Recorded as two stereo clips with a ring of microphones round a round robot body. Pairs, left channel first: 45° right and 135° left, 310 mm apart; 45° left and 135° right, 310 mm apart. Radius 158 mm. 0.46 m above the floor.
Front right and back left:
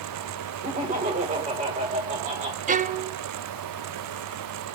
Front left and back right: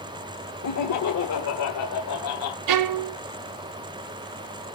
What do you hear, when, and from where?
0.6 s laughter: 70° left, 2 m
2.7 s a violin: 160° right, 0.7 m